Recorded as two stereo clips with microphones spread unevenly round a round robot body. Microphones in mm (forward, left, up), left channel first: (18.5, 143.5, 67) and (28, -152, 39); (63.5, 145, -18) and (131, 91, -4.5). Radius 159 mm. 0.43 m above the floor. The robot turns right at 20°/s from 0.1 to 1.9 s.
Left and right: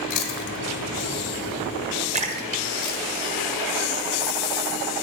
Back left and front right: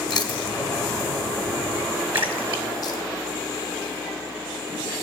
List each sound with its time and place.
0.1 s chewing: 115° left, 1.1 m; by 3.0 s 150° left, 1.1 m
2.1 s a splash: 25° right, 1.2 m